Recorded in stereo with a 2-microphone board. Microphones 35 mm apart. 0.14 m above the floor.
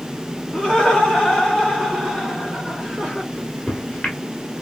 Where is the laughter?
25° left (ahead or behind), 1.6 m; by 3.2 s 5° left (ahead or behind), 1.8 m.